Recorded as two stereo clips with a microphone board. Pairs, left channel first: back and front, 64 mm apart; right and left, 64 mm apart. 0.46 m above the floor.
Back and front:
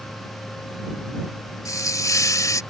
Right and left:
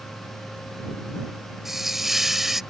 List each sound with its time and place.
1.6 s a hiss: 175° left